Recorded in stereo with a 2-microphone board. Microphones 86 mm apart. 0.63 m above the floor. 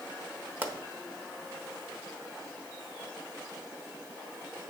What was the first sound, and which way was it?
A pop, 20° right (ahead or behind).